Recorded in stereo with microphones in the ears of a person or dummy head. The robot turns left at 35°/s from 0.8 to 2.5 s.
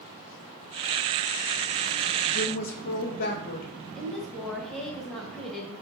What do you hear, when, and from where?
2.3 s a woman speaking: 40° left (ahead or behind), 0.7 m; by 3.7 s 45° left (ahead or behind), 0.7 m
4.0 s a woman speaking: centre (ahead or behind), 0.9 m